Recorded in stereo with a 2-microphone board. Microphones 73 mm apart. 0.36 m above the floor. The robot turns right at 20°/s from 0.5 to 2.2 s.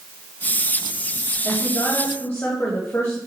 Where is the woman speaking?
25° left (ahead or behind), 2.0 m; by 3.2 s 35° left (ahead or behind), 2.0 m.